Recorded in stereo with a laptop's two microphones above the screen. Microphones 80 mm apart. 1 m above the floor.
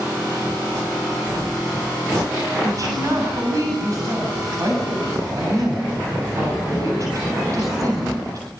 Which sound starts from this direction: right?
A woman speaking, at 2.6 s.